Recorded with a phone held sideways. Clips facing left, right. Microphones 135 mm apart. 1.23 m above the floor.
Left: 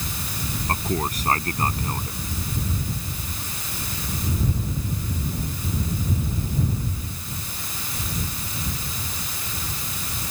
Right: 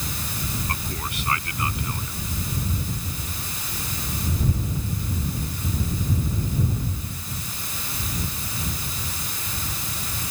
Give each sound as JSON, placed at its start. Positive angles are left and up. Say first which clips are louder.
{"t": 0.7, "sound": "a man speaking", "louder": "left 6 dB", "side_deg": 40}